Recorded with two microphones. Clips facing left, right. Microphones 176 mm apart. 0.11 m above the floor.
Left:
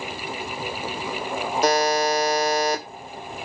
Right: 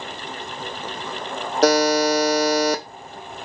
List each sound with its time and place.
1.6 s a buzzer: 80° right, 0.8 m